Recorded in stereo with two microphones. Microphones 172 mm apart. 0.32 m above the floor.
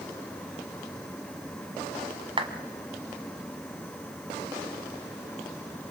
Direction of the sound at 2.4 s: 30° right (ahead or behind).